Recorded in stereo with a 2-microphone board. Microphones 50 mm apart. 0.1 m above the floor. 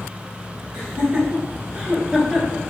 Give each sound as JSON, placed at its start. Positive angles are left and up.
{"t": 0.7, "sound": "laughter", "side_deg": -20, "distance_m": 1.3}